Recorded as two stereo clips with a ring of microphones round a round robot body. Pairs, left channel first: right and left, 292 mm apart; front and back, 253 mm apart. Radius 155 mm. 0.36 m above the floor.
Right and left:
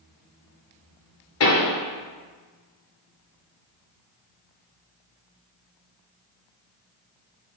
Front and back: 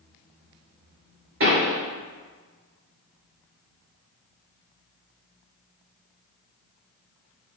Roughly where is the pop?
Behind right.